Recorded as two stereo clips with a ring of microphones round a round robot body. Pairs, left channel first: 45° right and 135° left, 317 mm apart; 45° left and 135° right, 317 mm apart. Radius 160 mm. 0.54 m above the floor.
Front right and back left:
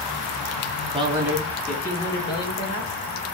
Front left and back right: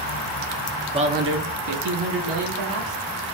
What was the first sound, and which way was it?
A man speaking, 175° left.